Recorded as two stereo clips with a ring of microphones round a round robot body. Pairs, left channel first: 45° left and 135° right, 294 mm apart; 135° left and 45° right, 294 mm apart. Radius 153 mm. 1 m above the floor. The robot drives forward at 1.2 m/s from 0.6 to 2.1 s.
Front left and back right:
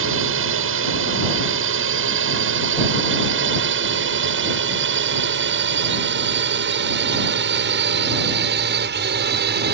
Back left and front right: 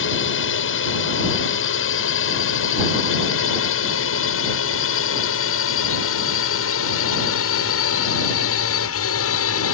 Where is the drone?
Straight behind; by 9.7 s 170° left.